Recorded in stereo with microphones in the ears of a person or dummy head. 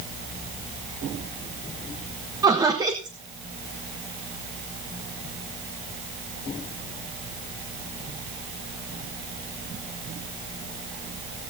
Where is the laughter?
15° right (ahead or behind), 1.3 m.